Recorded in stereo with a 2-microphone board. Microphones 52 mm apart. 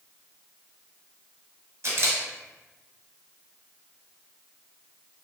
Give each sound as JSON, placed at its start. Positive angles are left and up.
{"t": 1.8, "sound": "a camera shutter", "side_deg": -55, "distance_m": 0.9}